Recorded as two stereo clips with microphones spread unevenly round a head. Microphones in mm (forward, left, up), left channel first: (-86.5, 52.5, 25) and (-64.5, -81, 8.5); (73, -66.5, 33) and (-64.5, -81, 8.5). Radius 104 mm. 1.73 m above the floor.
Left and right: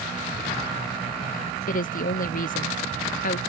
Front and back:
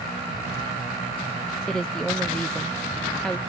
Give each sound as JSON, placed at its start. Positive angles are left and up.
{"t": 1.7, "sound": "a woman speaking", "azimuth_deg": 90}